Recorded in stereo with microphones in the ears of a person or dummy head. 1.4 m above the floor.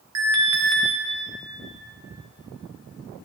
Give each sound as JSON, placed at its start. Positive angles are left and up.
{"t": 0.1, "sound": "an alarm", "side_deg": -70, "distance_m": 1.8}